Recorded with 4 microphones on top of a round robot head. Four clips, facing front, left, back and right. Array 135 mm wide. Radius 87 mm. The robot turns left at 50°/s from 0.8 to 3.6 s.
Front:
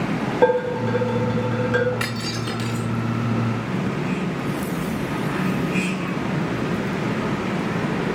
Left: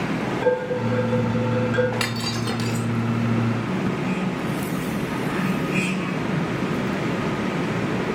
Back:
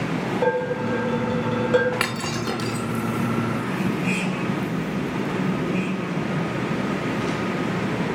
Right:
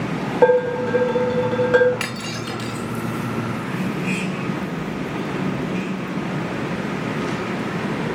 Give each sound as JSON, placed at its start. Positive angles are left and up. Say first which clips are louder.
{"t": 0.4, "sound": "dishes clattering", "louder": "right 8 dB, front 5 dB", "azimuth_deg": -55, "distance_m": 4.0}
{"t": 2.0, "sound": "breaking glass", "louder": "left 2 dB, back 1 dB", "azimuth_deg": 165, "distance_m": 3.0}